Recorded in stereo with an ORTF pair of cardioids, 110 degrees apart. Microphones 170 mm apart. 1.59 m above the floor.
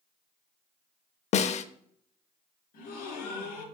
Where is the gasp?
60° left, 3.5 m.